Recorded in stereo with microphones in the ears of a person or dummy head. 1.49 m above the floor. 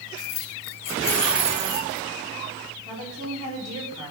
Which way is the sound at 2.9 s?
25° right (ahead or behind).